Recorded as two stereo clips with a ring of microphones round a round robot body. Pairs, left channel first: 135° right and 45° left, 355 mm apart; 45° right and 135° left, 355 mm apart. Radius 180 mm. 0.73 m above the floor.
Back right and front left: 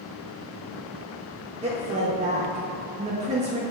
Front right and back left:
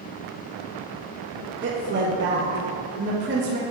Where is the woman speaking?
105° left, 0.8 m.